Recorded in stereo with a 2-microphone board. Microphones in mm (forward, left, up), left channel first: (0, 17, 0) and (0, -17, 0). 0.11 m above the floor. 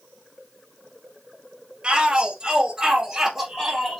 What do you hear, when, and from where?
1.8 s a shout: 25° right (ahead or behind), 2 m; by 4.0 s 5° left (ahead or behind), 1.7 m